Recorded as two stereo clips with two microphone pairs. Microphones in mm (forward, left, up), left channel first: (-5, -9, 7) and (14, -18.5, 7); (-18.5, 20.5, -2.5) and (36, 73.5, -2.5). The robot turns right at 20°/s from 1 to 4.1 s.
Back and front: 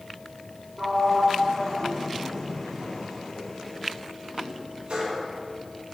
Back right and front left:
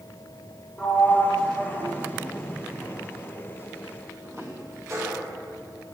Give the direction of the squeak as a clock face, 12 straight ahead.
I don't hear a squeak.